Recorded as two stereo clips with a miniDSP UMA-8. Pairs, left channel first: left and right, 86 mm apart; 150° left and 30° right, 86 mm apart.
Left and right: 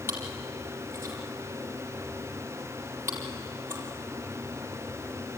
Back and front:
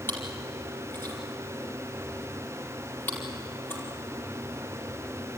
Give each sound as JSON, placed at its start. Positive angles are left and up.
{"t": 0.1, "sound": "chewing", "azimuth_deg": -150, "distance_m": 4.5}